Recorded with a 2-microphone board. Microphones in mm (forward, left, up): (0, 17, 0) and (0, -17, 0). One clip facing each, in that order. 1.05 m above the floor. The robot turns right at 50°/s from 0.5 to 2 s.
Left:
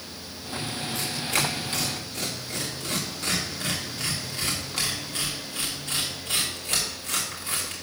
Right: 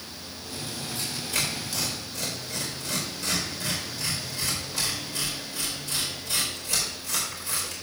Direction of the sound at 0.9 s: 70° left (ahead or behind).